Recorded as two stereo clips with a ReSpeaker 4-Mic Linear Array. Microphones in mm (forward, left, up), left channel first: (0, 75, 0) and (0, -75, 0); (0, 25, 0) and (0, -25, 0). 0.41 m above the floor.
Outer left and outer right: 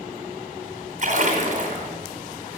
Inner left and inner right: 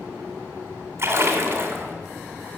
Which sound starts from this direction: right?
A splash, at 1.0 s.